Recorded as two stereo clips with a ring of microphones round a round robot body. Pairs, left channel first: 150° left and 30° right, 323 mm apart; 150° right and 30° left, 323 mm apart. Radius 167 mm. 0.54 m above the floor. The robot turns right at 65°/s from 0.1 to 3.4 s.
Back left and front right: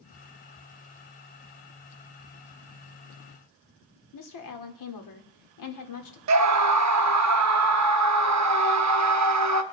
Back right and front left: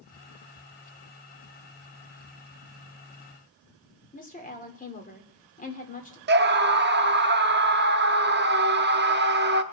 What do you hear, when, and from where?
4.1 s a woman speaking: 145° left, 2 m
6.3 s a scream: 20° right, 0.9 m